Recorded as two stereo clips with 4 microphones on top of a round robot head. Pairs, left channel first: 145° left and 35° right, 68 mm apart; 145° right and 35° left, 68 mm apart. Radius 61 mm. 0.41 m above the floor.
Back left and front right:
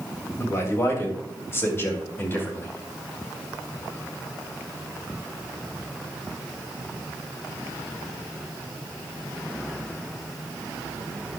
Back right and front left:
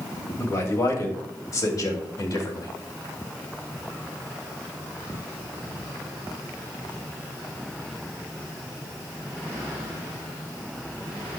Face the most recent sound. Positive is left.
turn(degrees=-160)